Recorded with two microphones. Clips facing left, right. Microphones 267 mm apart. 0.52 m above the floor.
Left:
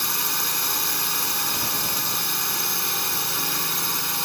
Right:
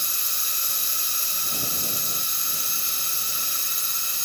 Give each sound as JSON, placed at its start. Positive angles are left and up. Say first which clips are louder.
{"t": 0.0, "sound": "a drone", "louder": "left 12 dB", "side_deg": 80}